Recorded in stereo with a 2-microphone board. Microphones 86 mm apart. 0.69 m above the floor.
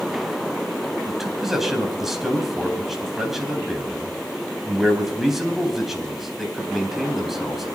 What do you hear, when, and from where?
1.1 s a man speaking: centre (ahead or behind), 4 m